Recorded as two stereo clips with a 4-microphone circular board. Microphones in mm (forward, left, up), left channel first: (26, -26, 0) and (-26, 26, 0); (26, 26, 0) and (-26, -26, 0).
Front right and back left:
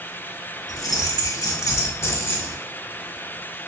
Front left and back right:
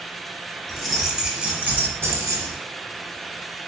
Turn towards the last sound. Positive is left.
turn(degrees=-110)